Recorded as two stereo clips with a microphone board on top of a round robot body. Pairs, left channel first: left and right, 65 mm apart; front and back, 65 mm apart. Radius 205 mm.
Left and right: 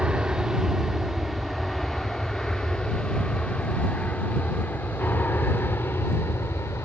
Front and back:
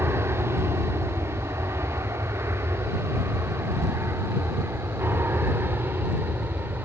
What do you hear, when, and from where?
0.0 s an aircraft: 165° right; by 6.9 s 130° left